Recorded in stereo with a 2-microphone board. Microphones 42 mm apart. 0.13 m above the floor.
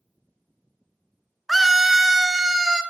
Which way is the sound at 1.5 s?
Centre (ahead or behind).